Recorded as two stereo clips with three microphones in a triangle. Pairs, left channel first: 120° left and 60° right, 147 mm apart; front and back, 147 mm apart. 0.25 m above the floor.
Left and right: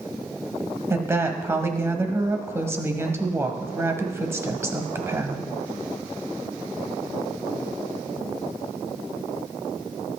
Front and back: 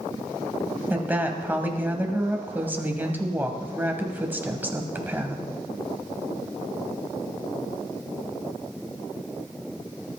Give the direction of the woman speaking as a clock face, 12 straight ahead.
4 o'clock.